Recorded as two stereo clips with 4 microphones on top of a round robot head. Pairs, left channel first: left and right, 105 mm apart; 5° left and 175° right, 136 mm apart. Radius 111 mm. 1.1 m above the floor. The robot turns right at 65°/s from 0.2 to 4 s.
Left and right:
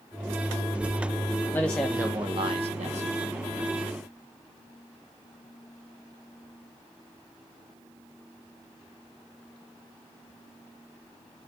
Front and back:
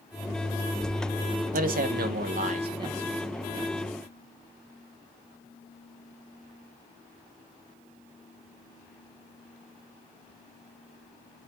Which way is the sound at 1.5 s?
165° left.